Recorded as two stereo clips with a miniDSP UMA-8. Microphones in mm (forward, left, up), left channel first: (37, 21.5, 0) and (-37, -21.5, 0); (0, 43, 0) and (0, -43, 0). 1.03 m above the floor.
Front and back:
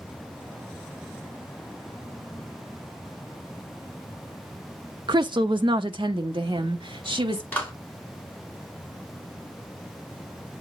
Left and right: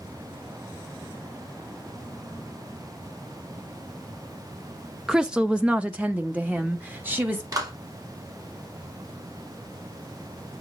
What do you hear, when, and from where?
5.1 s a woman speaking: 170° right, 0.5 m; by 7.4 s 160° right, 1.7 m
7.5 s a clap: 40° right, 2.5 m